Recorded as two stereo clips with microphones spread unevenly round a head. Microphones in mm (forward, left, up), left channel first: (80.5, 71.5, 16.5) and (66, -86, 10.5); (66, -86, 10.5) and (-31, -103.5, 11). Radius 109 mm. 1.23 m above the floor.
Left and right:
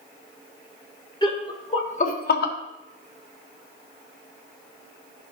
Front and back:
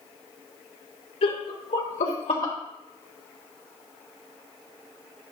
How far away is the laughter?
About 2.5 m.